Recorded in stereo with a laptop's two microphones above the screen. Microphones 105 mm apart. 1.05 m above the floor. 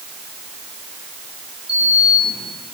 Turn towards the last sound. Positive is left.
turn(degrees=-70)  # may be behind; listen again after turning